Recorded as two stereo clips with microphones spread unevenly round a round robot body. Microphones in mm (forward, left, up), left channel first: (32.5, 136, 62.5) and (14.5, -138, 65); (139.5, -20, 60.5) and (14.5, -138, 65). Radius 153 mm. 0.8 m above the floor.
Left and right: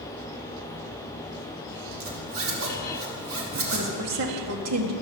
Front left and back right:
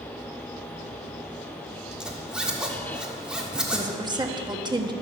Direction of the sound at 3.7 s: 70° right.